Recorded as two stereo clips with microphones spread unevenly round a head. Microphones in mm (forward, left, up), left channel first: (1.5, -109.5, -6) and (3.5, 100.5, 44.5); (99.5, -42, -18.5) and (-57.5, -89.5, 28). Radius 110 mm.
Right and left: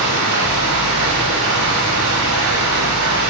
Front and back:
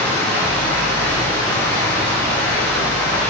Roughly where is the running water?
Left.